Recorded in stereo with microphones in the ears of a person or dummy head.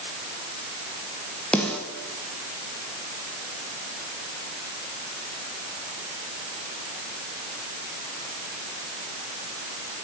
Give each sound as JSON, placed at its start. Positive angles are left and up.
{"t": 1.5, "sound": "a snare drum", "side_deg": 10, "distance_m": 1.8}